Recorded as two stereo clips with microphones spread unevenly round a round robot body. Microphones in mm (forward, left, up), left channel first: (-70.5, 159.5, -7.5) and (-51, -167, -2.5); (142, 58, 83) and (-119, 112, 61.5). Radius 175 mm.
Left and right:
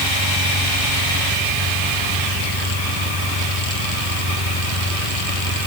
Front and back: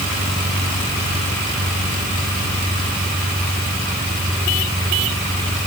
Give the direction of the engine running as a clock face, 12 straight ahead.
9 o'clock.